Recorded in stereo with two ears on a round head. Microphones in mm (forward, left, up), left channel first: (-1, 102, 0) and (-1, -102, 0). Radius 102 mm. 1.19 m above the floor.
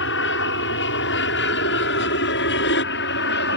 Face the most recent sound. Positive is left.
turn(degrees=50)  # may be behind; listen again after turning